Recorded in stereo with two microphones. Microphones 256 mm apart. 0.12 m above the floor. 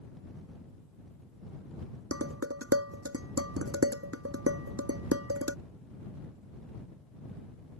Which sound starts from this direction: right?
Dishes clattering, at 2.1 s.